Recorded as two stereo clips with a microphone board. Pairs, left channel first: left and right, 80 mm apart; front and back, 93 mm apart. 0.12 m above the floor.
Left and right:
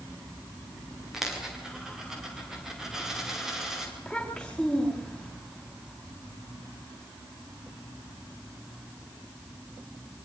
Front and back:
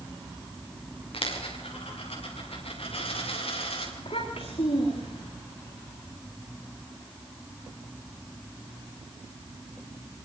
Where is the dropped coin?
5° right, 7 m.